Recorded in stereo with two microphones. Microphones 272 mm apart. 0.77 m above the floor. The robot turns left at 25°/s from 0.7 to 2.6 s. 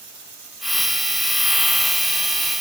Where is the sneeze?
I don't hear a sneeze.